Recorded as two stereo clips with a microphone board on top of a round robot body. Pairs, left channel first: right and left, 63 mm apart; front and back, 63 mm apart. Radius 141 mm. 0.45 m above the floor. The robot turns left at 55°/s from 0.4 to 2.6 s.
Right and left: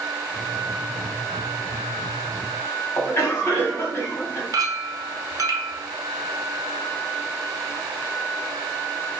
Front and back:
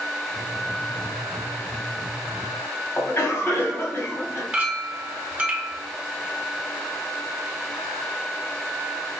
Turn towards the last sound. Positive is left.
turn(degrees=110)